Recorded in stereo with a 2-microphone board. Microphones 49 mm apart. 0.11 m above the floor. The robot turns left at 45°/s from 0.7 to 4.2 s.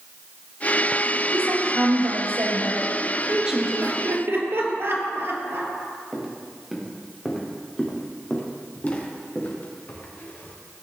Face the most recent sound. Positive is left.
turn(degrees=45)  # may be behind; listen again after turning